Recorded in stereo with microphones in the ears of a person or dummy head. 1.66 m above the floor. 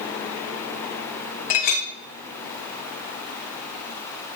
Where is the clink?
45° left (ahead or behind), 1.0 m.